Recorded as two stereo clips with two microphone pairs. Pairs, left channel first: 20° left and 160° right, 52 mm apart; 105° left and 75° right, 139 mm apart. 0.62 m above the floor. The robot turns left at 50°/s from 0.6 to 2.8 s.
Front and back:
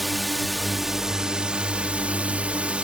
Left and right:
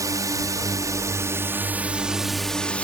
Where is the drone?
75° right; by 2.8 s 175° left.